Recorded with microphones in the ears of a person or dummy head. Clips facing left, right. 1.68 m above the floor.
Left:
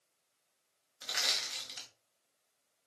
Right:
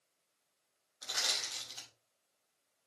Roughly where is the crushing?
Left.